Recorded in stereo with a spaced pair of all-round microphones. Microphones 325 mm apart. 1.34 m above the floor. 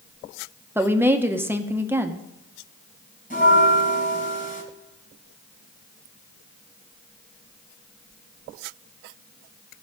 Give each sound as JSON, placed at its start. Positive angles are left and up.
{"t": 0.8, "sound": "a woman speaking", "side_deg": -5, "distance_m": 1.0}
{"t": 3.3, "sound": "a bell", "side_deg": 25, "distance_m": 3.5}